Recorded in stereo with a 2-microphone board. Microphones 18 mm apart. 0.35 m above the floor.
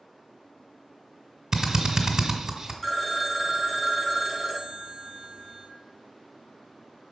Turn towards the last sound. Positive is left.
turn(degrees=15)  # may be behind; listen again after turning